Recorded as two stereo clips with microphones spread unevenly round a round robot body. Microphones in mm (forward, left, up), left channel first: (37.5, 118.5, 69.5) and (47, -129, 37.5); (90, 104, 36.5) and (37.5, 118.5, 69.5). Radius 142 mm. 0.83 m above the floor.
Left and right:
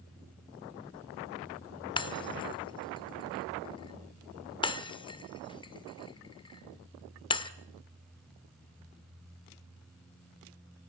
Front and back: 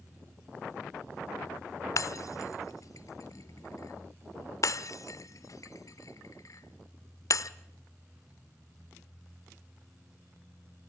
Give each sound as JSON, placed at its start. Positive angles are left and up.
{"t": 2.0, "sound": "breaking glass", "azimuth_deg": 25, "distance_m": 1.0}